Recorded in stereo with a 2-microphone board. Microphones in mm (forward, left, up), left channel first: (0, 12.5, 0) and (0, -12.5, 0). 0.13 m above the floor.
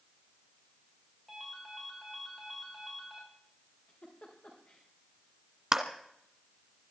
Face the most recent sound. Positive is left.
turn(degrees=-20)  # may be behind; listen again after turning